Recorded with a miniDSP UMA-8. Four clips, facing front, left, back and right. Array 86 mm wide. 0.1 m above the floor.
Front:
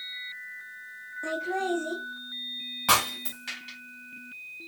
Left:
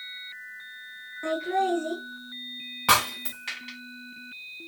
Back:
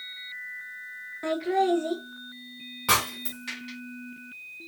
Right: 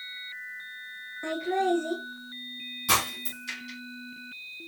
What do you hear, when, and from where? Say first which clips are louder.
1.2 s laughter: left 1 dB, back 5 dB; straight behind, 1.2 m
2.9 s breaking glass: left 5 dB, front 1 dB; 80° left, 3 m